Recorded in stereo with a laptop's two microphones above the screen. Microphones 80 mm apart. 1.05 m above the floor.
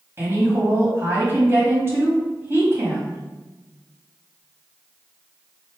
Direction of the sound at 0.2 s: 30° right (ahead or behind).